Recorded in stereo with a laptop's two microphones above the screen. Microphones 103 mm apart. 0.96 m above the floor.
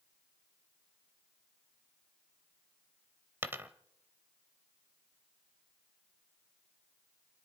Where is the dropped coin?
20° right (ahead or behind), 0.8 m.